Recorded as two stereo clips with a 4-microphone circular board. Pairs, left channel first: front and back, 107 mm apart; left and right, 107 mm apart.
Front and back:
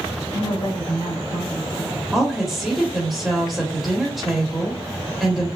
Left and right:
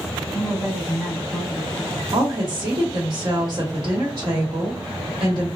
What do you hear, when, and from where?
0.3 s a woman speaking: 15° left, 2.0 m
2.1 s a woman speaking: 90° right, 1.3 m